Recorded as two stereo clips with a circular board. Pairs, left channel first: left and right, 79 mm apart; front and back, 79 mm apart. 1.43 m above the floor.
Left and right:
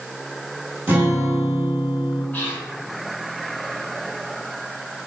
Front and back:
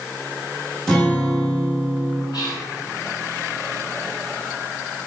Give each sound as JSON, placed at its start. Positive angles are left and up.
{"t": 0.9, "sound": "a guitar", "azimuth_deg": -70, "distance_m": 1.1}
{"t": 2.3, "sound": "whispering", "azimuth_deg": 25, "distance_m": 1.2}